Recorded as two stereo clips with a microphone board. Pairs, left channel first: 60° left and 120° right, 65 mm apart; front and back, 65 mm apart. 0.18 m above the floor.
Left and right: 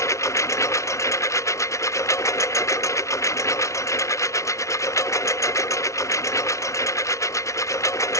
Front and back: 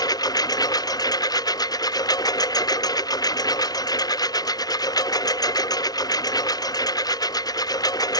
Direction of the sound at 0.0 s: 20° left.